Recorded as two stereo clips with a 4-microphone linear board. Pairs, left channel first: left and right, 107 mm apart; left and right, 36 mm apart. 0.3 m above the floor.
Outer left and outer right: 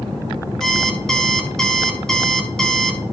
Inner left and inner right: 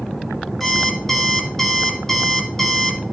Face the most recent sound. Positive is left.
turn(degrees=5)  # may be behind; listen again after turning